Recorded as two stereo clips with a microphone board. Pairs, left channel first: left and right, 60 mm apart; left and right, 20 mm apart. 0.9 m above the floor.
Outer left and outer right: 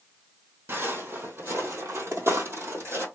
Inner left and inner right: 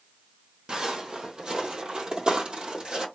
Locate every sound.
0.7 s footsteps: 40° right (ahead or behind), 1.6 m; by 3.1 s 50° right (ahead or behind), 1.6 m